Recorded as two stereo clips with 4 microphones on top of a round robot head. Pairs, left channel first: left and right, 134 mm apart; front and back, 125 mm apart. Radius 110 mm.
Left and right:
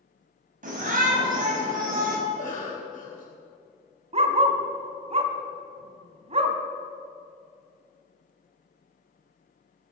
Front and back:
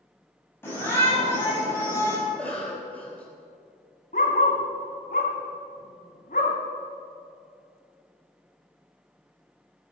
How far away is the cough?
About 3.5 m.